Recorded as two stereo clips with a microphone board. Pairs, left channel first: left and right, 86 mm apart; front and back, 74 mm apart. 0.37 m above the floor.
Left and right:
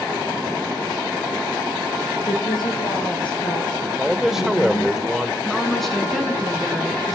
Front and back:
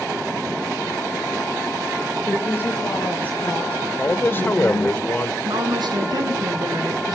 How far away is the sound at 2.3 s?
About 6 m.